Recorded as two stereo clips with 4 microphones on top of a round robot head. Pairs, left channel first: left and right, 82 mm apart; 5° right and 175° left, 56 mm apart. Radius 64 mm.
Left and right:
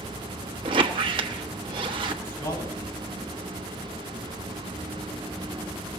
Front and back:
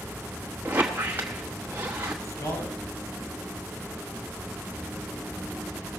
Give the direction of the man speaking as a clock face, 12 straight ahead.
11 o'clock.